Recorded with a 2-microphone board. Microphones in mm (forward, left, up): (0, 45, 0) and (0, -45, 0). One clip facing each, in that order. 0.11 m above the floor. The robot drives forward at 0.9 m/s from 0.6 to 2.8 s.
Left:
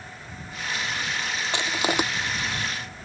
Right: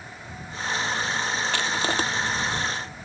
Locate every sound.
1.5 s crushing: 20° left (ahead or behind); by 2.0 s 15° left (ahead or behind)